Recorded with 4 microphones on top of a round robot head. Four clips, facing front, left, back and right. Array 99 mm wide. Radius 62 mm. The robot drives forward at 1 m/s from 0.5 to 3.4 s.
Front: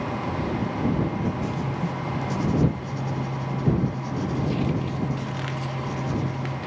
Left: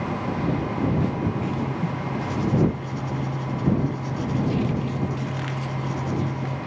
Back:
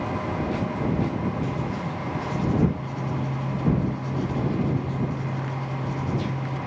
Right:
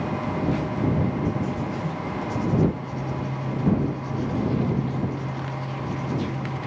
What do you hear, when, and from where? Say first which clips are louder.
1.4 s writing: left 1 dB, even; 65° left, 6 m; by 6.6 s 85° left, 5.5 m